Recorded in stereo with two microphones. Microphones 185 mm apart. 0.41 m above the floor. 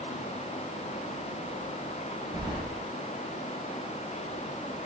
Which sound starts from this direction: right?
Keys jangling, at 2.3 s.